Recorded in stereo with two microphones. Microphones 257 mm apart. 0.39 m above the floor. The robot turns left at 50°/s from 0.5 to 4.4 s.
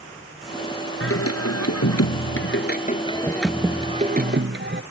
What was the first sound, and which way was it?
Singing, 125° left.